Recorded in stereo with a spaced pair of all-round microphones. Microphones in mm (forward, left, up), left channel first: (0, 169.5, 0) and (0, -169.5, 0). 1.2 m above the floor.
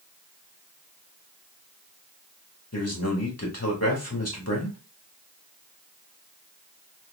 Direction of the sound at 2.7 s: 45° left (ahead or behind).